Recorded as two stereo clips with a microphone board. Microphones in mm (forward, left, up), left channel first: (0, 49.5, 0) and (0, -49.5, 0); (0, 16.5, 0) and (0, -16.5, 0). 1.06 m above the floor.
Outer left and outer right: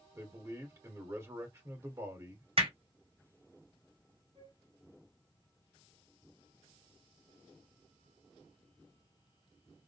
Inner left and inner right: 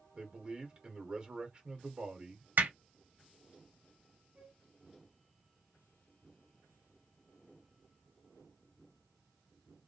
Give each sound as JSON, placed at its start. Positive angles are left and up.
{"t": 0.2, "sound": "a man speaking", "side_deg": -30, "distance_m": 1.9}
{"t": 2.6, "sound": "hammering", "side_deg": -70, "distance_m": 2.0}
{"t": 4.3, "sound": "a flute", "side_deg": -55, "distance_m": 1.9}